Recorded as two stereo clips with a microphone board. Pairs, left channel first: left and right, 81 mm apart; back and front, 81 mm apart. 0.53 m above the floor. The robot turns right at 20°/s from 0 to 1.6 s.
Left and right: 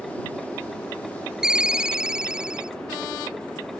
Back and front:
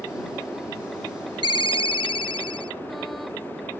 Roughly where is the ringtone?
Behind.